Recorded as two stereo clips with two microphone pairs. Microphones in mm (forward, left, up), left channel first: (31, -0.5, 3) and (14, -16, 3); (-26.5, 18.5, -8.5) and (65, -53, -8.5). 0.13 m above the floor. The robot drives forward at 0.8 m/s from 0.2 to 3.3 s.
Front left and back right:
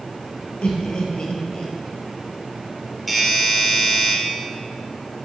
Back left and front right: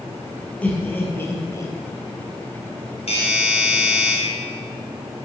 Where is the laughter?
65° left, 2.5 m; by 1.7 s 85° left, 2.5 m.